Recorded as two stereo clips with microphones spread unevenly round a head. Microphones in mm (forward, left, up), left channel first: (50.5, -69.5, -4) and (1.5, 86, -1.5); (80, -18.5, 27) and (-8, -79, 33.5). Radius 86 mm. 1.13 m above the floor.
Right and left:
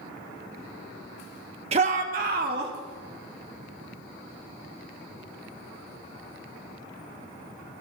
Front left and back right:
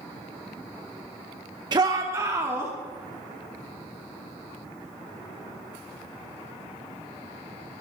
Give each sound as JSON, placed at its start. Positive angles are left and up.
{"t": 1.7, "sound": "a shout", "azimuth_deg": 160, "distance_m": 1.4}